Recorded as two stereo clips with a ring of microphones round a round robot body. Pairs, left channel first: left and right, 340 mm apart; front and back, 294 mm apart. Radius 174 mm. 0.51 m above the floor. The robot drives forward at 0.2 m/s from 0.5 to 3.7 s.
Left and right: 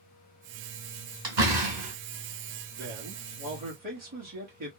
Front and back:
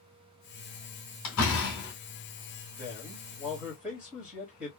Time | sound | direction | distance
1.2 | a door slam | 55° right | 2.5 m
2.8 | a man speaking | 80° right | 1.4 m